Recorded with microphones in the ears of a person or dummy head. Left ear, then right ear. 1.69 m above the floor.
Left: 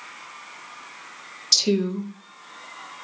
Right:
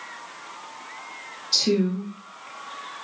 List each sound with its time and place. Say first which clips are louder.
1.5 s a woman speaking: left 2 dB; 50° left (ahead or behind), 0.8 m